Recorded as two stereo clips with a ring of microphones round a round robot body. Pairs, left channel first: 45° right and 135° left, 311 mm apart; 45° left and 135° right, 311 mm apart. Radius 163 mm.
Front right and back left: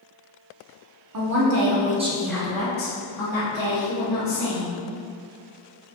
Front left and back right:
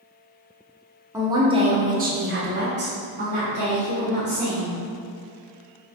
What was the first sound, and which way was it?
A woman speaking, 145° left.